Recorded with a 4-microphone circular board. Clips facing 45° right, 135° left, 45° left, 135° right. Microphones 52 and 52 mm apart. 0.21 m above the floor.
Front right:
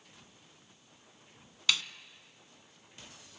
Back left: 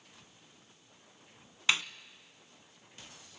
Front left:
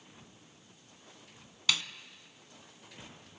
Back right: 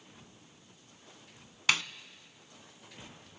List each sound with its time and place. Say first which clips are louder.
1.7 s a snare drum: back left 2 dB, back right 3 dB; 170° right, 0.5 m